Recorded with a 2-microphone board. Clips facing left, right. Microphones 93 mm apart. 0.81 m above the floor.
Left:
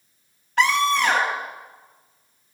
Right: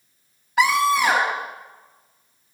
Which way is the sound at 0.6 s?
10° right (ahead or behind).